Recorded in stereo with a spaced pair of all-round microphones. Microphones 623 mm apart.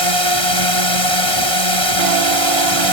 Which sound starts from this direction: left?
A drone, at 0.0 s.